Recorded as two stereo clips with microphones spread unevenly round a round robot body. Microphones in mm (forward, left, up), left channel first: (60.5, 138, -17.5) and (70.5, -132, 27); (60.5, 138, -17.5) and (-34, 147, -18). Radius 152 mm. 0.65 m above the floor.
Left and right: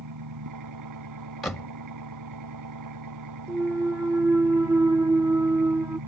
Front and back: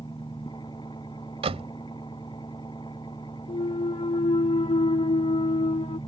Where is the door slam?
Straight behind.